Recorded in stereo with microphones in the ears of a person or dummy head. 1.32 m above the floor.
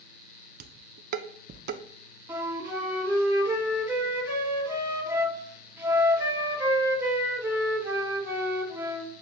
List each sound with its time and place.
0.6 s dishes clattering: 55° right (ahead or behind), 0.5 m
2.3 s a flute: 15° right (ahead or behind), 1.3 m